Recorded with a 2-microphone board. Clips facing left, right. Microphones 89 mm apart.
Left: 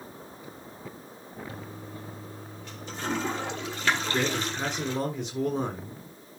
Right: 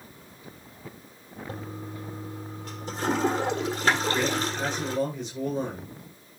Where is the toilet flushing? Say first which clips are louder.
Right 3 dB; 40° right (ahead or behind), 2.0 m.